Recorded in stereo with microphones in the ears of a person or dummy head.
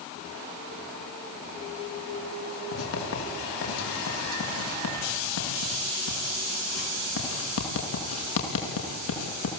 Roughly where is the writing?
Left.